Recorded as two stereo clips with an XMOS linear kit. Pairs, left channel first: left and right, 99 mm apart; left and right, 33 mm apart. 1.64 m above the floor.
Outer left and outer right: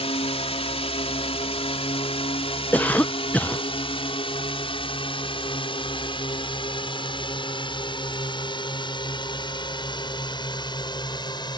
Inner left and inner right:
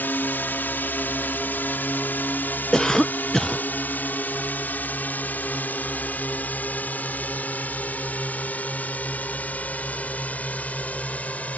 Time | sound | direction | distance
0.0 | a drone | 85° left | ?
2.7 | a cough | 15° left (ahead or behind) | ?